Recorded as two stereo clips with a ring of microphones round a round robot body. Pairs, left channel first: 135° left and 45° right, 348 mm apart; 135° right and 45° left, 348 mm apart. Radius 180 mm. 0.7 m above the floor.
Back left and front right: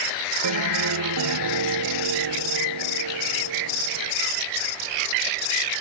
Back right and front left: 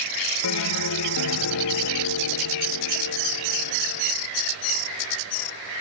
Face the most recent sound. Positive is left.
turn(degrees=-90)